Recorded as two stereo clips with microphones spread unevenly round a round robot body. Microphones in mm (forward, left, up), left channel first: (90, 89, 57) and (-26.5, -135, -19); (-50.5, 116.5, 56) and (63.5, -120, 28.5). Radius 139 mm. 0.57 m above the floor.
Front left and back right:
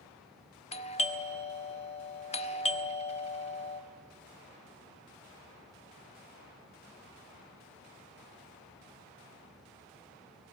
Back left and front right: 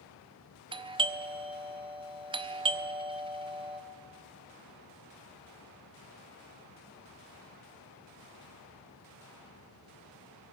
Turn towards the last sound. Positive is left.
turn(degrees=-15)